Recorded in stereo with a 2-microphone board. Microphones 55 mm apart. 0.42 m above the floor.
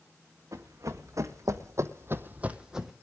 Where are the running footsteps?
70° right (ahead or behind), 1.9 m; by 2.9 s centre (ahead or behind), 1.1 m.